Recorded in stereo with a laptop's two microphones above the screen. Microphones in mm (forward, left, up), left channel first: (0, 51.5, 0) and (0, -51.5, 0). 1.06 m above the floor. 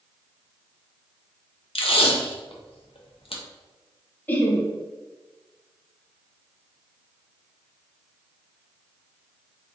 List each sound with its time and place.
1.8 s tape being pulled: 75° left (ahead or behind), 0.5 m
4.3 s laughter: 20° left (ahead or behind), 0.6 m